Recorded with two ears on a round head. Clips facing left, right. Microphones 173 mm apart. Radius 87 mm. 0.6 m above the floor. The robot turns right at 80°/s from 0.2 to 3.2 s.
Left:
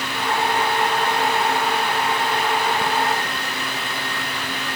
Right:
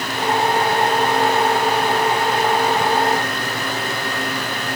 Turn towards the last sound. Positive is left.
No sound to turn to.